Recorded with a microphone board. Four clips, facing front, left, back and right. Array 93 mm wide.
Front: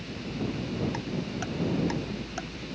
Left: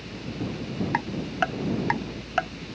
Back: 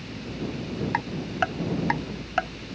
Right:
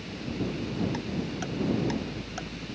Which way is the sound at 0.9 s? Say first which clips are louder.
Left 6 dB, back 6 dB; 135° left.